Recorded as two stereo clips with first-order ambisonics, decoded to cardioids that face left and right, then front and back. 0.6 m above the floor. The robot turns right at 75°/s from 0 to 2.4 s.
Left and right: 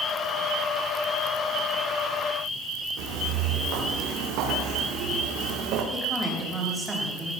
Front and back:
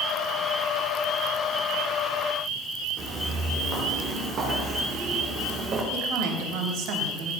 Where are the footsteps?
125° right, 6 m; by 5.8 s 120° right, 4.5 m.